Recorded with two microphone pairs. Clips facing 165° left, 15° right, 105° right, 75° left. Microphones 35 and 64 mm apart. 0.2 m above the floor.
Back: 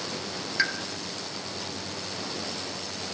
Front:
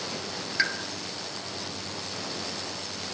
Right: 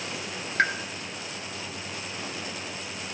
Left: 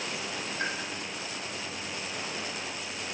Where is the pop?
95° right, 1.8 m.